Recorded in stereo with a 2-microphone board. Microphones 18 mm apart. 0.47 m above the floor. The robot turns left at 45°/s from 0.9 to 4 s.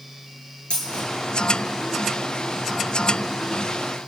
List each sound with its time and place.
0.7 s a dropped coin: 80° left, 2.5 m; by 1.1 s 90° left, 2.5 m